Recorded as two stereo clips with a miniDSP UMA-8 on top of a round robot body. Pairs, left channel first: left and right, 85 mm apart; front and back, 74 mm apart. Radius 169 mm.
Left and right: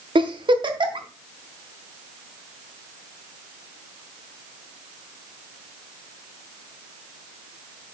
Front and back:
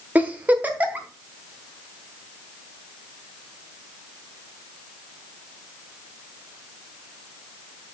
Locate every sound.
0.1 s a giggle: 110° right, 1.2 m